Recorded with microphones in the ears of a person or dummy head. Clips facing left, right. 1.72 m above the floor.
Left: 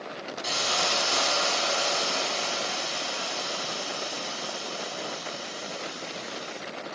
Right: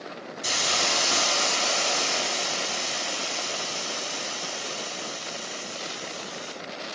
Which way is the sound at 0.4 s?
40° right (ahead or behind).